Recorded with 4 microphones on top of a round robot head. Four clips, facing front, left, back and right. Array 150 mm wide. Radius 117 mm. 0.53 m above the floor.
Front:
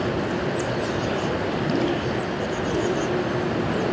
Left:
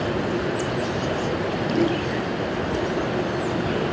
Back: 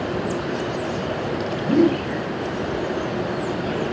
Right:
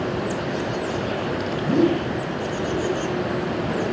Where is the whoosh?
135° right, 4.5 m.